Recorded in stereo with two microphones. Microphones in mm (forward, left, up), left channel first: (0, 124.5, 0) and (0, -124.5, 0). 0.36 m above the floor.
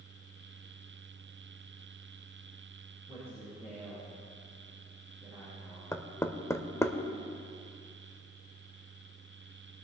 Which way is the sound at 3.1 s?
10° right (ahead or behind).